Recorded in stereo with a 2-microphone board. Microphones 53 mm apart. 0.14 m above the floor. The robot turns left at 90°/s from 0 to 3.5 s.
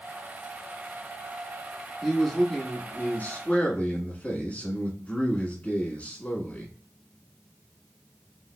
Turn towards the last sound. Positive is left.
turn(degrees=60)